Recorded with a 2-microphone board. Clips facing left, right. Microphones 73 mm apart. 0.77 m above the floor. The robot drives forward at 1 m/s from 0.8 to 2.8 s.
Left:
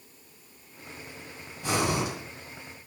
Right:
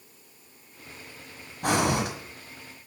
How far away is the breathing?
About 1.3 m.